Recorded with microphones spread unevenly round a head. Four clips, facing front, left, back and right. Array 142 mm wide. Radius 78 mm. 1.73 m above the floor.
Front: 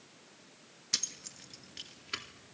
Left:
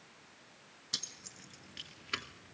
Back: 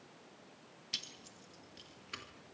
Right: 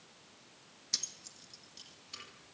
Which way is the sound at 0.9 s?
10° left.